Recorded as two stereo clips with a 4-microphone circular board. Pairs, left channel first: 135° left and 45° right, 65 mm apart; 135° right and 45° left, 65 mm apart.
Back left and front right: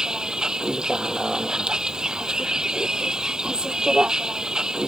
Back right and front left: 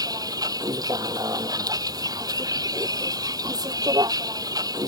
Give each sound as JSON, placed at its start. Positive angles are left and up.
{"t": 0.0, "sound": "a vehicle", "azimuth_deg": 35}